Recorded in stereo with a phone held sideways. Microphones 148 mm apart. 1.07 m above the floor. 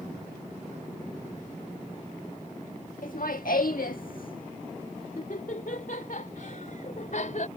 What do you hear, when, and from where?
3.0 s laughter: 75° left (ahead or behind); by 7.5 s 60° left (ahead or behind)